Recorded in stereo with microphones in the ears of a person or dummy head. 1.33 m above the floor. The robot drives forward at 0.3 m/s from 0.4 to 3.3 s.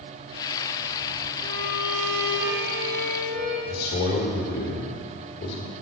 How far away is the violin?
About 3 m.